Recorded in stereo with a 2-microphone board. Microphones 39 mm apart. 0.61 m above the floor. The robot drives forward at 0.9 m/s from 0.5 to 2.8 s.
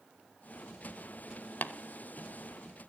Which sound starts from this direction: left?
Tapping, at 1.6 s.